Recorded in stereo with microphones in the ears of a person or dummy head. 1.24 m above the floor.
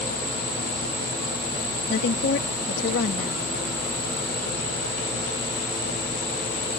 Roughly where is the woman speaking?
Left.